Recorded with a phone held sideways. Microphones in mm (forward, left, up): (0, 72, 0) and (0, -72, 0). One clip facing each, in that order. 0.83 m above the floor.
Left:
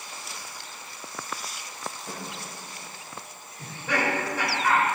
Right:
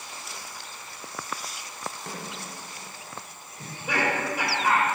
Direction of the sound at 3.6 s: 10° right (ahead or behind).